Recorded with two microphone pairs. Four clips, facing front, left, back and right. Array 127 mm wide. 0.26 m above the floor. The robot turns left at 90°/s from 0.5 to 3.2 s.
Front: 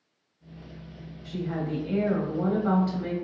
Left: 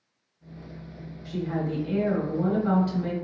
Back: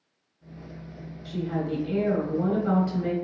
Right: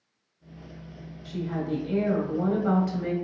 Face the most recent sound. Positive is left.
turn(degrees=-110)